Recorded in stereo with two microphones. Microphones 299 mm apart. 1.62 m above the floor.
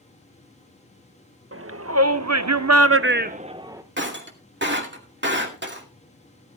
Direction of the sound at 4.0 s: 35° right (ahead or behind).